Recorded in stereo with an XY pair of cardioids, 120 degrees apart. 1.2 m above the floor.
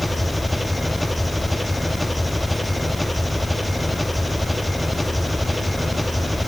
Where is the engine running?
5° left.